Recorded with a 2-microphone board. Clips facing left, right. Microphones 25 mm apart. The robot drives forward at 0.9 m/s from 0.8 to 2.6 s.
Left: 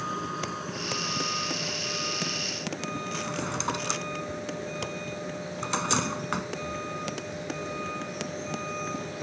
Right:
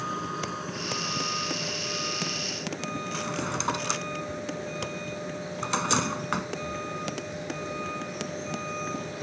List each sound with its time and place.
0.0 s a vehicle: centre (ahead or behind)
3.1 s a drawer: 10° right (ahead or behind)